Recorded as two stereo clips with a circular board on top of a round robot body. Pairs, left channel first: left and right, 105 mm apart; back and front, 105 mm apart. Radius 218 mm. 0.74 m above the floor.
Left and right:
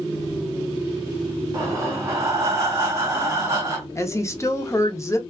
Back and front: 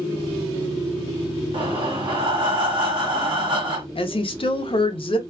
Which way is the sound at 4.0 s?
150° left.